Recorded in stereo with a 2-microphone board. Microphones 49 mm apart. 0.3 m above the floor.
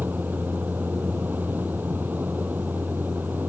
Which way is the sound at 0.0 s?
40° right (ahead or behind).